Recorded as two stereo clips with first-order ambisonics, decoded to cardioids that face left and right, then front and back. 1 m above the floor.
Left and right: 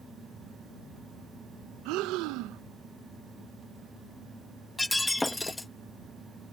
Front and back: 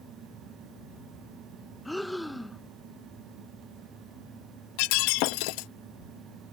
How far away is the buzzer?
No buzzer in this recording.